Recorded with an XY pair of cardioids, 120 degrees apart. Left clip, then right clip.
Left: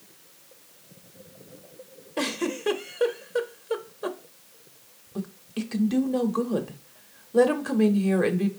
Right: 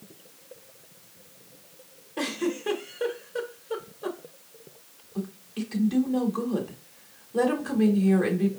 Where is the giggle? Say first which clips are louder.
Left 1 dB; 35° left, 0.7 m.